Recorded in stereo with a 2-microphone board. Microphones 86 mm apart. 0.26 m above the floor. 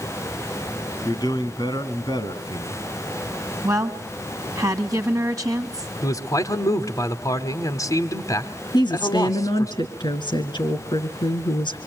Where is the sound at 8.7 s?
65° left (ahead or behind), 3 m.